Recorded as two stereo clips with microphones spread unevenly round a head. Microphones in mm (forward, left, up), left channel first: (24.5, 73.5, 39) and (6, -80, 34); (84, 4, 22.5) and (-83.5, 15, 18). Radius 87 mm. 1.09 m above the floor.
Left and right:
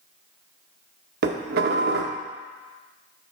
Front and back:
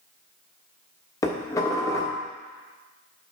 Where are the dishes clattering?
75° right, 0.8 m.